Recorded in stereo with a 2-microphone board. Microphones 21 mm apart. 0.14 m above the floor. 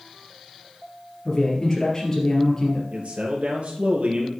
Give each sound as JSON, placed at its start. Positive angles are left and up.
{"t": 1.2, "sound": "a man speaking", "side_deg": 20, "distance_m": 3.0}
{"t": 2.9, "sound": "a man speaking", "side_deg": -60, "distance_m": 3.5}